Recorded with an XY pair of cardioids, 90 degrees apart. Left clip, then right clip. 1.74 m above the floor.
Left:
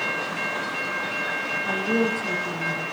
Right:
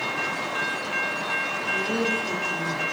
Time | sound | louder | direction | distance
1.6 | a woman speaking | left 2 dB | 65° left | 2.5 m